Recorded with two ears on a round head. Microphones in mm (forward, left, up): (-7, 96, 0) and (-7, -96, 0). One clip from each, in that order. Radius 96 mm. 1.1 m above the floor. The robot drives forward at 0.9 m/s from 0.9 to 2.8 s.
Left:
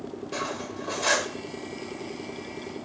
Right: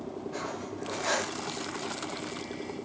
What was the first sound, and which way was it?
Cutlery clinking, 70° left (ahead or behind).